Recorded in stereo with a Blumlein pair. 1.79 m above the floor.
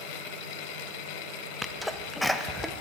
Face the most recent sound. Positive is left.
turn(degrees=5)